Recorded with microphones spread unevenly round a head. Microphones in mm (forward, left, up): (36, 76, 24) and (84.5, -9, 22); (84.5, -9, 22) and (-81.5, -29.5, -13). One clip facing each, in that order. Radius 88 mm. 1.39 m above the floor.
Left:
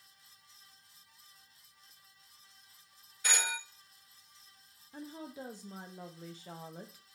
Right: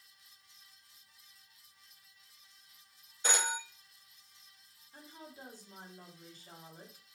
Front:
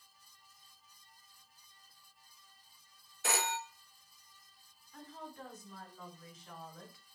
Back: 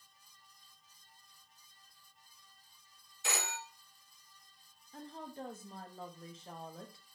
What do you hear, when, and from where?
3.2 s a phone ringing: straight ahead, 0.9 m
4.9 s a woman speaking: 125° left, 0.8 m